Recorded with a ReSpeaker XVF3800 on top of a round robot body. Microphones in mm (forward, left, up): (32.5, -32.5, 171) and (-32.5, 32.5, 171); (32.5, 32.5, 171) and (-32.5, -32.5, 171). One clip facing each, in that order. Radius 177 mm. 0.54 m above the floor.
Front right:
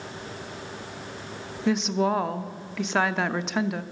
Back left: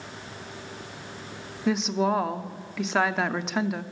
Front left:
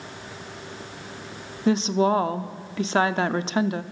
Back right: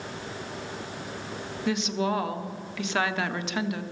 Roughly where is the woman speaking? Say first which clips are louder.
Front right 1 dB, front left 7 dB; ahead left.